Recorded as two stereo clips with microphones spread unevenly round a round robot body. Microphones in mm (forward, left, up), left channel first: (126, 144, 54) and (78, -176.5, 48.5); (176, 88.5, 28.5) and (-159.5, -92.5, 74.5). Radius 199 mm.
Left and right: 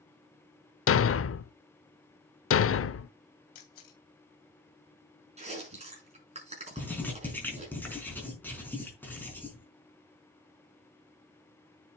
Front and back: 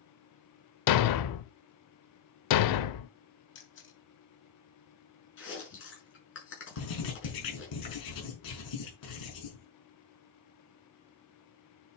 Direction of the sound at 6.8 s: 5° right.